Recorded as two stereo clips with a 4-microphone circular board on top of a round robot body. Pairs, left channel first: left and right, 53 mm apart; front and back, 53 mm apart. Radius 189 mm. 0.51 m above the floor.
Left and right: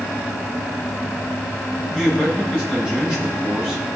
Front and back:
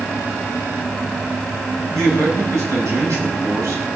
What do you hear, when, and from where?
1.9 s a man speaking: 165° right, 7 m